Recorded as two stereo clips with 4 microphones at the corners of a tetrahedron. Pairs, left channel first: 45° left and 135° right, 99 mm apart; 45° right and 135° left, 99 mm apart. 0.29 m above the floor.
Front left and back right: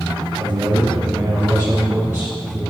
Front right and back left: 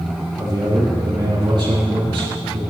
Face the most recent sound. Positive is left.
turn(degrees=155)